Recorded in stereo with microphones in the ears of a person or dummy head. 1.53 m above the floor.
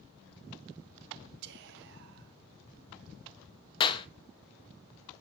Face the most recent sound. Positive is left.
turn(degrees=30)  # may be behind; listen again after turning